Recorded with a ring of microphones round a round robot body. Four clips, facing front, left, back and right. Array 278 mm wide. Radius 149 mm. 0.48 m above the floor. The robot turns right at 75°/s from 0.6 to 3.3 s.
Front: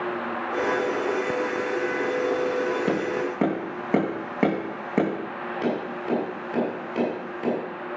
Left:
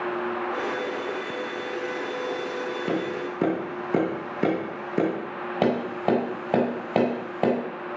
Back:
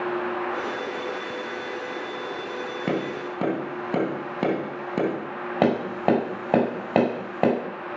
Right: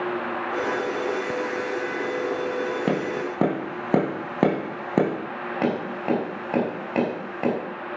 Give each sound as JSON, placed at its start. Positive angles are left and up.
{"t": 2.9, "sound": "tapping", "azimuth_deg": -110, "distance_m": 3.0}
{"t": 5.6, "sound": "tapping", "azimuth_deg": 165, "distance_m": 4.5}